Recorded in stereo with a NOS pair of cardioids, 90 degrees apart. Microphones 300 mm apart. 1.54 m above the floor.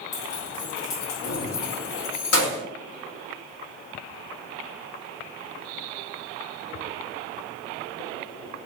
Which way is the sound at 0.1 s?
60° left.